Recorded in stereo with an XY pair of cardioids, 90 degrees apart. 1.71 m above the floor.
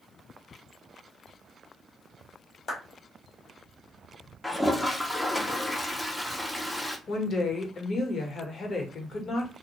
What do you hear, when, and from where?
2.7 s a clap: 65° left, 1.1 m
4.4 s a toilet flushing: 10° left, 0.5 m
7.1 s a woman speaking: 55° left, 1.0 m